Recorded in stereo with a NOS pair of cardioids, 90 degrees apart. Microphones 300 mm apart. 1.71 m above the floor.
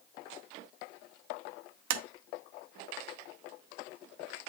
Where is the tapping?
65° right, 0.8 m.